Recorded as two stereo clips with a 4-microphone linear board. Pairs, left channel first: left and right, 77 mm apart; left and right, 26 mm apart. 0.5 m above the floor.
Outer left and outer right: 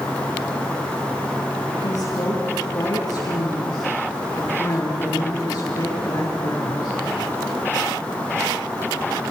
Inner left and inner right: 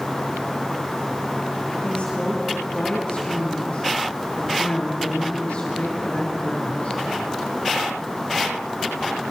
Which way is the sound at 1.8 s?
55° left (ahead or behind).